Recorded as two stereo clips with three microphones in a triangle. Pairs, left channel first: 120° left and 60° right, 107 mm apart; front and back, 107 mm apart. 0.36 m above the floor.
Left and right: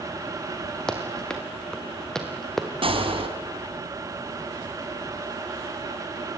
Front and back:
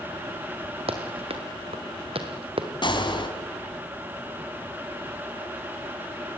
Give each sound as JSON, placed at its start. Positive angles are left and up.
{"t": 0.9, "sound": "running footsteps", "azimuth_deg": -160, "distance_m": 4.0}
{"t": 2.8, "sound": "a gunshot", "azimuth_deg": -35, "distance_m": 3.5}